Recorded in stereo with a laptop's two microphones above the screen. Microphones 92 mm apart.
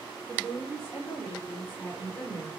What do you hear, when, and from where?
0.3 s a woman speaking: 35° right (ahead or behind), 3 m; by 2.5 s 5° left (ahead or behind), 3.5 m